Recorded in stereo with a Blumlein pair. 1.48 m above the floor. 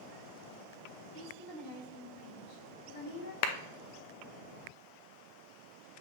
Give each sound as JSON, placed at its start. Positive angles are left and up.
{"t": 1.1, "sound": "a woman speaking", "azimuth_deg": 25, "distance_m": 3.5}
{"t": 3.4, "sound": "a clap", "azimuth_deg": 45, "distance_m": 0.8}